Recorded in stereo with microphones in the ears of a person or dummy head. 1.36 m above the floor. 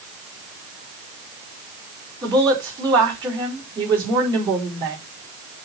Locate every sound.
2.2 s a woman speaking: 20° right (ahead or behind), 4 m